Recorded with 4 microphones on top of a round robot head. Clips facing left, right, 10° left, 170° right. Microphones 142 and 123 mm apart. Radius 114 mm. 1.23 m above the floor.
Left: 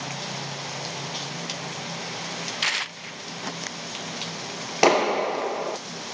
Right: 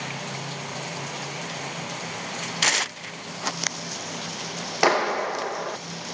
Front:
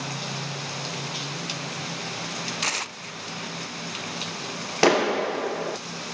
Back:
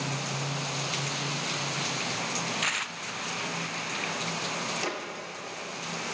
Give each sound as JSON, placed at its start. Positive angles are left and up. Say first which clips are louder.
{"t": 2.6, "sound": "tearing paper", "louder": "right 5 dB, front 2 dB", "azimuth_deg": -45}
{"t": 4.8, "sound": "a clap", "louder": "left 3 dB, front 15 dB", "azimuth_deg": 20}